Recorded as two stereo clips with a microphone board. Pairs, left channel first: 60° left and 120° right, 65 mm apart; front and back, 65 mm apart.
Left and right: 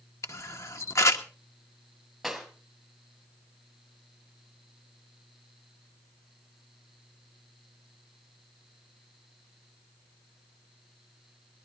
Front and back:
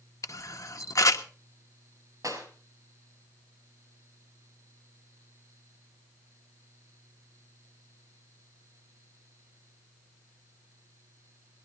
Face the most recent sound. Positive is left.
turn(degrees=150)